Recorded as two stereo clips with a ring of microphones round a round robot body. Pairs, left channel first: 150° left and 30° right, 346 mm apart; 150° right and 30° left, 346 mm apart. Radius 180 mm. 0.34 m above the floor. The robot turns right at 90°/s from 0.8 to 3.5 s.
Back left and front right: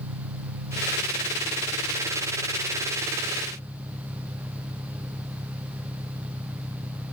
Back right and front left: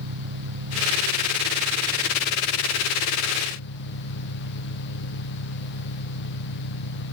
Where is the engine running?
Straight ahead; by 7.1 s 115° right.